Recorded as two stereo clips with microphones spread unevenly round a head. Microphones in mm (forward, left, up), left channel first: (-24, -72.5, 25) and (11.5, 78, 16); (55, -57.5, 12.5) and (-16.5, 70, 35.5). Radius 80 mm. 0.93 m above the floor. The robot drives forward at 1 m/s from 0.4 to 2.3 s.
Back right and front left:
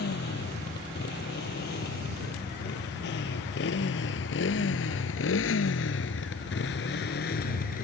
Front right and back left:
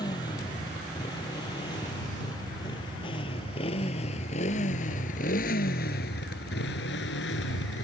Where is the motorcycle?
125° right; by 7.8 s 65° right.